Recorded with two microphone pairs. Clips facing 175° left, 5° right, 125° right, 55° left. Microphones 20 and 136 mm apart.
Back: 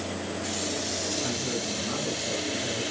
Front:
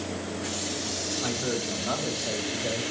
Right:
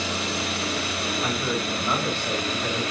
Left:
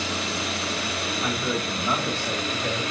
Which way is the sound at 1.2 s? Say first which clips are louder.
Front 1 dB, left 1 dB; 40° right.